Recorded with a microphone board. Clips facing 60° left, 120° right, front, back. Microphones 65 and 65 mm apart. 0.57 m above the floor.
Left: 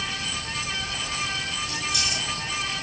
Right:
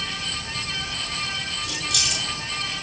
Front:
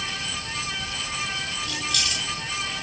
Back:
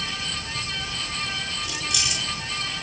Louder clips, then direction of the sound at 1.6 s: Right 1 dB, front 1 dB; 100° right.